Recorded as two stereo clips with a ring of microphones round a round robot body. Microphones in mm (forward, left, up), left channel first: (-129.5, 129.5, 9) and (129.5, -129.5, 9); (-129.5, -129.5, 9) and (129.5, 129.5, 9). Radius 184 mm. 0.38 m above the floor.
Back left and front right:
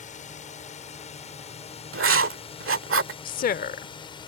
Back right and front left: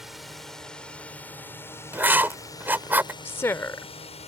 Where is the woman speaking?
150° left.